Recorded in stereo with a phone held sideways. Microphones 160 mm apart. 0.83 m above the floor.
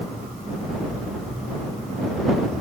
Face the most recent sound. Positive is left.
No sound to turn to.